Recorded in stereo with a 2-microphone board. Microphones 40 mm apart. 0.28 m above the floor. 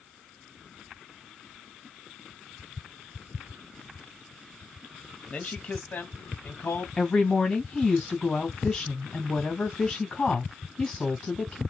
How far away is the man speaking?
About 1.1 m.